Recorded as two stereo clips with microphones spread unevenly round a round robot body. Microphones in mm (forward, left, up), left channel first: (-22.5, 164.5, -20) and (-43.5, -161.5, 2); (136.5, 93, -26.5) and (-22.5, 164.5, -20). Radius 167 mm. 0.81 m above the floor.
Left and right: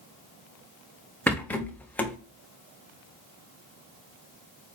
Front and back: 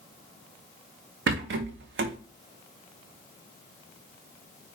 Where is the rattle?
170° left, 0.6 m.